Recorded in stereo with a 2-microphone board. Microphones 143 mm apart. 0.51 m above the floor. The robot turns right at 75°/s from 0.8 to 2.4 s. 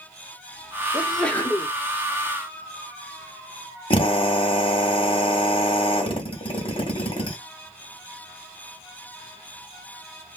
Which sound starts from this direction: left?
A drill, at 3.9 s.